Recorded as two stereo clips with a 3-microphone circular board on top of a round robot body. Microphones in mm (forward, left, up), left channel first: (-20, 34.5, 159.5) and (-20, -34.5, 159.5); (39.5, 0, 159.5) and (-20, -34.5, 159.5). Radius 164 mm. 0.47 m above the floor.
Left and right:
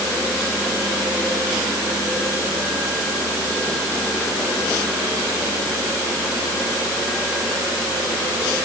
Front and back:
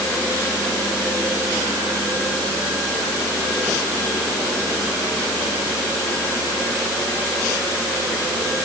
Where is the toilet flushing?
No toilet flushing in this recording.